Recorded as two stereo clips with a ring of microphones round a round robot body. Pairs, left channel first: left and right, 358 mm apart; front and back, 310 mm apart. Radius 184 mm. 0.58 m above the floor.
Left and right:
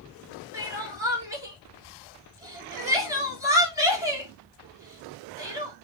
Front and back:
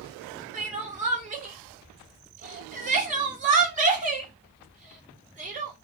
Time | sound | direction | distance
0.5 | crying | 160° right | 1.1 m